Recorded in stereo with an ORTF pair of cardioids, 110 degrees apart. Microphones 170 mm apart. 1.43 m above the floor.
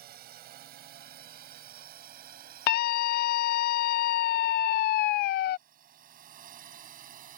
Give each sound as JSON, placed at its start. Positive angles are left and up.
{"t": 0.0, "sound": "a drone", "azimuth_deg": -65}
{"t": 2.7, "sound": "a scream", "azimuth_deg": 70}